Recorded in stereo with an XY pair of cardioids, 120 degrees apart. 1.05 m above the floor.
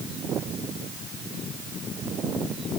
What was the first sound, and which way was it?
Only background noise.